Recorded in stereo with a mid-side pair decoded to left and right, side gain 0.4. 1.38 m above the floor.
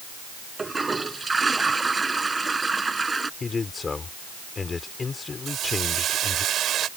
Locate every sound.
0.6 s a toilet flushing: 25° right
3.4 s a man speaking: 40° left
5.5 s a hiss: 70° right